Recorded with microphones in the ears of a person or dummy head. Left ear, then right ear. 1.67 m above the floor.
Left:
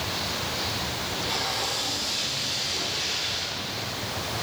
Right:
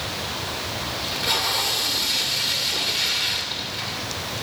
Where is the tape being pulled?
30° right (ahead or behind), 2.5 m.